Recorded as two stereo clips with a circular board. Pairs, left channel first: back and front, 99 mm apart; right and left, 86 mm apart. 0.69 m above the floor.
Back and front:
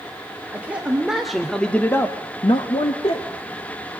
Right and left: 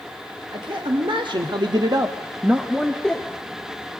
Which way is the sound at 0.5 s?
75° left.